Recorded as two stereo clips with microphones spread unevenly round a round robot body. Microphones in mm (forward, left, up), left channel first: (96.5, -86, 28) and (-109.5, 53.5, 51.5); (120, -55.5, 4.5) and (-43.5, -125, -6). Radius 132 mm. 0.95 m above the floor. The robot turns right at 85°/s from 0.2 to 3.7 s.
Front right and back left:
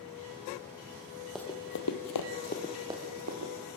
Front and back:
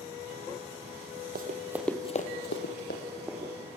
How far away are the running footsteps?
About 2.5 m.